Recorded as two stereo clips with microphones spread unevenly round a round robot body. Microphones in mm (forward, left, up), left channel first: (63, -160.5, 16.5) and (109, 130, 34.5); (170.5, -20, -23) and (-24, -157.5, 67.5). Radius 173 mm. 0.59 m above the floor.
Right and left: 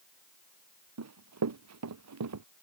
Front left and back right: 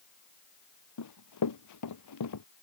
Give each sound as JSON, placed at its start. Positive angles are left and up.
{"t": 1.0, "sound": "running footsteps", "azimuth_deg": 50}